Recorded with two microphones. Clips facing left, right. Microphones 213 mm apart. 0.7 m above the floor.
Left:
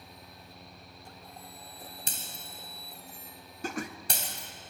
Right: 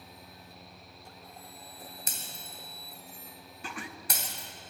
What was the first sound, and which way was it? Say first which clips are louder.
Breaking glass: left 1 dB; 30° left (ahead or behind).